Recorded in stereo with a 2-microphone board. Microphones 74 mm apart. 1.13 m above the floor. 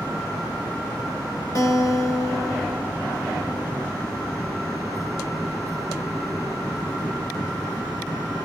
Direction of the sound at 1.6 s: 50° left (ahead or behind).